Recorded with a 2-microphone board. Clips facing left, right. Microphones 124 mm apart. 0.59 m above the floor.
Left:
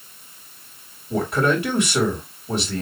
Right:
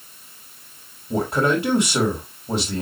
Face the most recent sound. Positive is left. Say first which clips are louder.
# even
turn(degrees=-25)  # may be behind; listen again after turning